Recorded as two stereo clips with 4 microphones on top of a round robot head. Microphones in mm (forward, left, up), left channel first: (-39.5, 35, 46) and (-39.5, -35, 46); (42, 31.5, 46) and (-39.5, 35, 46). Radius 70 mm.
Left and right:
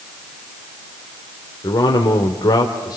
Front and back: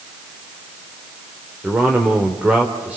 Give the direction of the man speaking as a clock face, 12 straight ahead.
8 o'clock.